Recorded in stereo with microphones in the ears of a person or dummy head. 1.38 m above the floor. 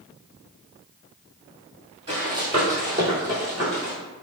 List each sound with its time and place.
2.1 s running footsteps: 20° right (ahead or behind), 1.8 m; by 3.9 s 15° right (ahead or behind), 1.3 m